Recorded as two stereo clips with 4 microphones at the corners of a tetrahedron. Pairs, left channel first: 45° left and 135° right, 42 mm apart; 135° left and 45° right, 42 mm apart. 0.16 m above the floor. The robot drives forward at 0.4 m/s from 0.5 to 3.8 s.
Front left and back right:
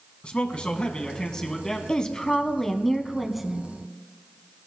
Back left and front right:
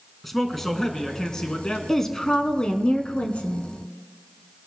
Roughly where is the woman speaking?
Left.